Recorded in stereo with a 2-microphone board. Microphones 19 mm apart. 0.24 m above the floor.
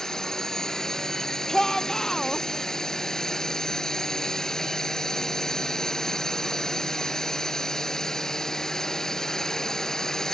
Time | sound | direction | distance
0.0 | a drone | 30° left (ahead or behind) | ?
1.5 | a shout | 30° left (ahead or behind) | ?